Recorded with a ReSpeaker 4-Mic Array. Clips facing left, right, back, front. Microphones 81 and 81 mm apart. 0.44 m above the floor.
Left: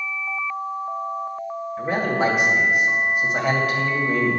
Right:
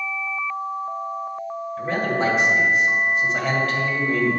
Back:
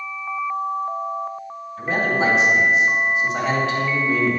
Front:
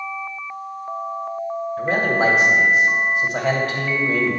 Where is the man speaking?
15° left, 1.9 m.